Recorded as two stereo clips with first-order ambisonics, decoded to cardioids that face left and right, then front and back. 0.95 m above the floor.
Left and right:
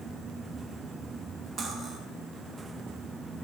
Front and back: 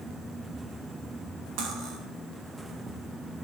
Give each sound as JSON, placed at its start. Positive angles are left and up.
{"t": 1.6, "sound": "cutlery clinking", "azimuth_deg": -160, "distance_m": 1.0}